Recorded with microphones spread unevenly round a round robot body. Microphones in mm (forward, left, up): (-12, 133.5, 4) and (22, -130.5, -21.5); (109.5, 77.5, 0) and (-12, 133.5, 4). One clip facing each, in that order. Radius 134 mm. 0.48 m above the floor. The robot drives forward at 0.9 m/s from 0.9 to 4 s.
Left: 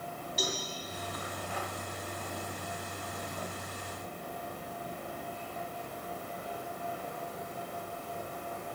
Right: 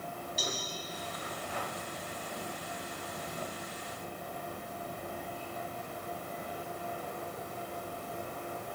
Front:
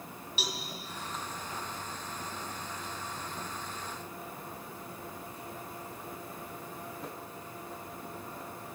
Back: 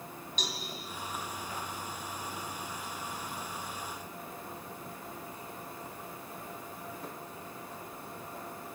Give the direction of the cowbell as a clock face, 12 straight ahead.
10 o'clock.